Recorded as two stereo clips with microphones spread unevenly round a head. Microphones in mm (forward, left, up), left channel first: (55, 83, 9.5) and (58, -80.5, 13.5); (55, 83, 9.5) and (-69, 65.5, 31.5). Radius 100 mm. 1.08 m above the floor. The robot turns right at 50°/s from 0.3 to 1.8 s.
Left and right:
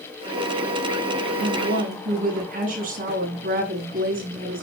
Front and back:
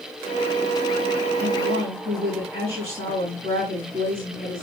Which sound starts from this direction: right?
A woman speaking, at 1.4 s.